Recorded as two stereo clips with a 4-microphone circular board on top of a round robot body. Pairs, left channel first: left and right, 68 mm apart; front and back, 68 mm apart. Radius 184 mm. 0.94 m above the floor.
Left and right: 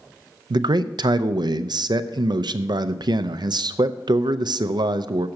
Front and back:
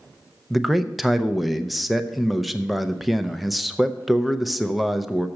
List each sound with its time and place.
0.5 s a man speaking: 90° right, 0.6 m